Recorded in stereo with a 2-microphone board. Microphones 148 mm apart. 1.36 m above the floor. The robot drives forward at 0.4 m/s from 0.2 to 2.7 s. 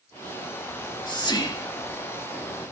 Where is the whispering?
30° left (ahead or behind), 3 m; by 2.3 s 25° left (ahead or behind), 3.5 m.